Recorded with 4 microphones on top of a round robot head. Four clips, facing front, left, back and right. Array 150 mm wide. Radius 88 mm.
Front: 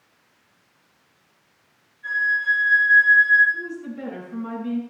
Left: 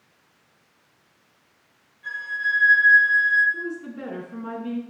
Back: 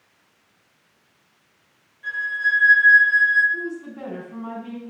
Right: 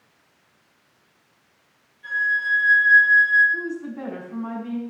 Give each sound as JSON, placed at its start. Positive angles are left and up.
{"t": 2.0, "sound": "a flute", "azimuth_deg": -170, "distance_m": 8.5}
{"t": 3.5, "sound": "a woman speaking", "azimuth_deg": -120, "distance_m": 5.5}